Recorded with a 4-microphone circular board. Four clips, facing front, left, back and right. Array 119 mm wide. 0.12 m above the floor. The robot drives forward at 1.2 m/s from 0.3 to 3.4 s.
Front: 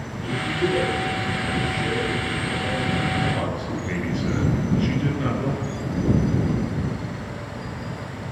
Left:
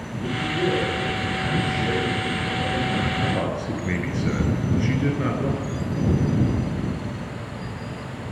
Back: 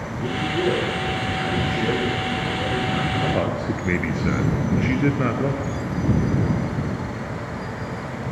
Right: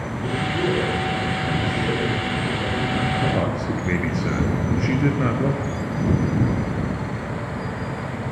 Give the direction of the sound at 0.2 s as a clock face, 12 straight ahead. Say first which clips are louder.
Even, back 2 dB; 6 o'clock.